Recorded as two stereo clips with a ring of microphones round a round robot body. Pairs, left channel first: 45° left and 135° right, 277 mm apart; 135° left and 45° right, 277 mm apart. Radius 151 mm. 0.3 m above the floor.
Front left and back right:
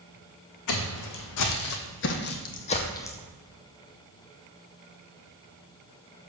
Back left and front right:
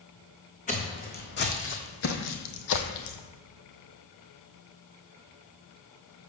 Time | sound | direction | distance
0.7 | footsteps | 70° left | 1.6 m